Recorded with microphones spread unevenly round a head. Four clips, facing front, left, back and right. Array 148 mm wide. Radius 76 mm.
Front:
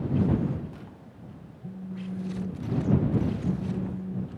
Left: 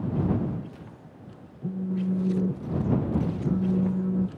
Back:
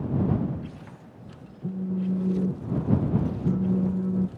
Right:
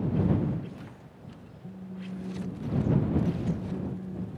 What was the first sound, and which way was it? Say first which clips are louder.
A phone buzzing: left 13 dB, back 9 dB; 135° left.